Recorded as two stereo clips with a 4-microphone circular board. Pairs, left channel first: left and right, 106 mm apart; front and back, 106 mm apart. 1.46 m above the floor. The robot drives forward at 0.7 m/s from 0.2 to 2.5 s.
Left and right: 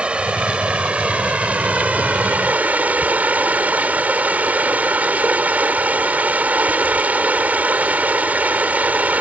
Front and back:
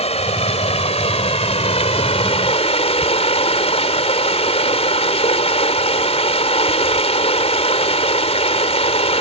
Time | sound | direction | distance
0.0 | running water | 10° right | ?